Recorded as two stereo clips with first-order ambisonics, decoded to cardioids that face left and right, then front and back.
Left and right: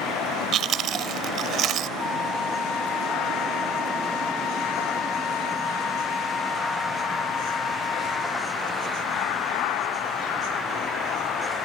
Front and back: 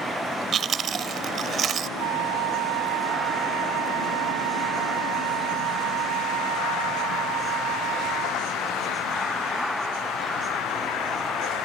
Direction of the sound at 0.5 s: 130° right.